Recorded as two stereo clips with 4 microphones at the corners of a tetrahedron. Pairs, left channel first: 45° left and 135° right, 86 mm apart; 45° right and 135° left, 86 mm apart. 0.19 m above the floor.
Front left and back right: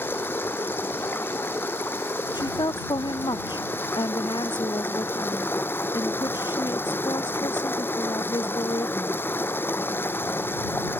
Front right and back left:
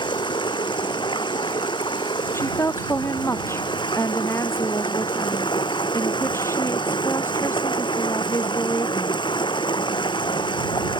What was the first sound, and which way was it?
Running water, 20° right.